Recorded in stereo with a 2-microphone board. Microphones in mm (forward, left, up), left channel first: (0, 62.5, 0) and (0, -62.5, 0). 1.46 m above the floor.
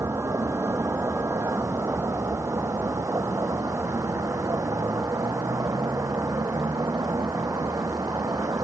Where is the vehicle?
20° right (ahead or behind); by 8.6 s 25° right (ahead or behind).